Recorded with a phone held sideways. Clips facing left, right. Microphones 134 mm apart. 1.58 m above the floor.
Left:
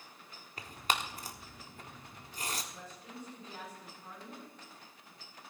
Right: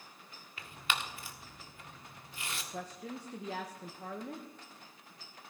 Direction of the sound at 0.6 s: 40° left (ahead or behind).